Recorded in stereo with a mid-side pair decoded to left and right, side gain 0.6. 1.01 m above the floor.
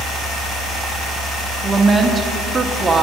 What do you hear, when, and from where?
1.6 s a woman speaking: 15° right, 1.5 m